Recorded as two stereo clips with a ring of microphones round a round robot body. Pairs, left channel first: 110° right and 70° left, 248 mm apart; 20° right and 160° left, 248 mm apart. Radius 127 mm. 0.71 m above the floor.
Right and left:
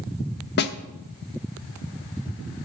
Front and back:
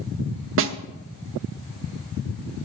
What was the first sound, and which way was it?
A snare drum, 160° right.